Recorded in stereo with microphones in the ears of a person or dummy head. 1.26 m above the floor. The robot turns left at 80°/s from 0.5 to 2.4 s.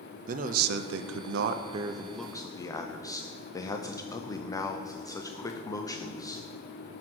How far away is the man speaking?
About 0.6 m.